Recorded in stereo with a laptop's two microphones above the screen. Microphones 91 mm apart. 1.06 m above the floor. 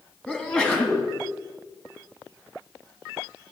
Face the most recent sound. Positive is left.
turn(degrees=15)  # may be behind; listen again after turning